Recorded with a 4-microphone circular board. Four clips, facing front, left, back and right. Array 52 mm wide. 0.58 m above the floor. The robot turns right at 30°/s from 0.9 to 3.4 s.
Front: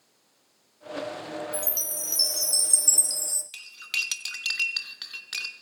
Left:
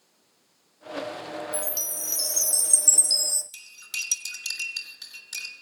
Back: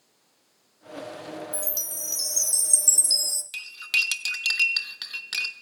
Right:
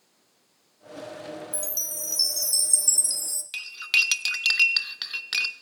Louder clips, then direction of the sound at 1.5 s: Left 4 dB, front 2 dB; 100° left.